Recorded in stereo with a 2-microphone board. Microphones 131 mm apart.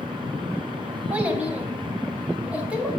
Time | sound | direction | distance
1.1 | a child speaking | 10° right (ahead or behind) | 0.8 m